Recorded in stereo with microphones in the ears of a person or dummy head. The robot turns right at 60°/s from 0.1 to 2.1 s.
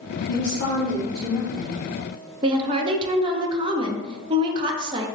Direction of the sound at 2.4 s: 25° right (ahead or behind).